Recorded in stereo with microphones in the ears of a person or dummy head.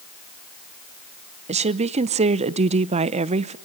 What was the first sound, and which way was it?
A woman speaking, 30° right (ahead or behind).